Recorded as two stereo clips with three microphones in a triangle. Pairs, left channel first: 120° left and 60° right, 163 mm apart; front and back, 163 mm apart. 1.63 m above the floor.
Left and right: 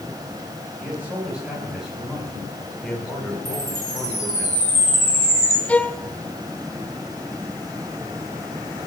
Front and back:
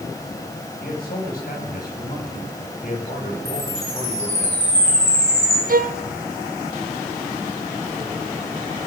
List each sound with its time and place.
0.8 s a man speaking: 20° left, 6 m; by 4.5 s 50° left, 4 m
3.5 s a chime: 50° left, 7 m
5.7 s a violin: 160° right, 0.6 m